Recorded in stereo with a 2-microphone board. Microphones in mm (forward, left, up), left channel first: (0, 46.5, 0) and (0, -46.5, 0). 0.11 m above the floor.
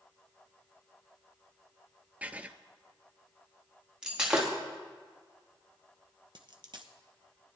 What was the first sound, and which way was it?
Writing, 15° right (ahead or behind).